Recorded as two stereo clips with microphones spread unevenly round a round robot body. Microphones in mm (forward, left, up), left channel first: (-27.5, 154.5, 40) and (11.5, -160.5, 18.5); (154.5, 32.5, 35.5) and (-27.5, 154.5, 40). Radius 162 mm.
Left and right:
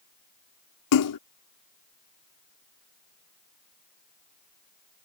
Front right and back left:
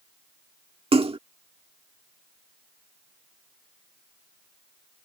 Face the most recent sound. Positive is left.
turn(degrees=85)